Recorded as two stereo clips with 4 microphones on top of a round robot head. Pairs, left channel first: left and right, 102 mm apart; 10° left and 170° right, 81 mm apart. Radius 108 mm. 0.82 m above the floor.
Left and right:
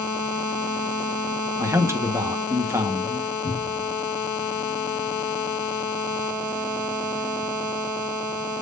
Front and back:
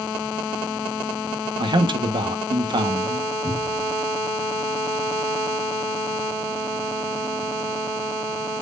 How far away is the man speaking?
About 1.3 m.